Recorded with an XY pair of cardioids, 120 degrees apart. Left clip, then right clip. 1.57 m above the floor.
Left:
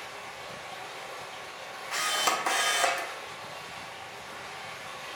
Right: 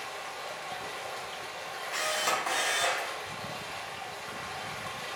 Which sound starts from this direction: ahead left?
A camera shutter, at 1.9 s.